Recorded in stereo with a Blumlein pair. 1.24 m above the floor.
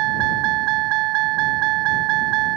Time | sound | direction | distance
0.0 | a vehicle | 40° right | ?